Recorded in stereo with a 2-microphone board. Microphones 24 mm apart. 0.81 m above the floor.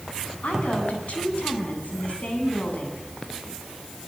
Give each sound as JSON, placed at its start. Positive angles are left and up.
{"t": 0.4, "sound": "a woman speaking", "side_deg": 75, "distance_m": 8.0}